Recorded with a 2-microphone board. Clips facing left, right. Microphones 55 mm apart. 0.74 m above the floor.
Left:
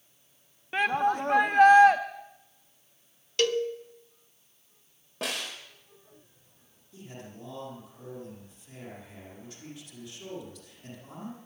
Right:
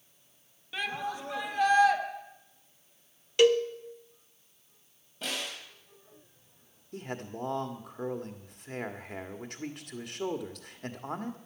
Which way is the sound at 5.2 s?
75° left (ahead or behind).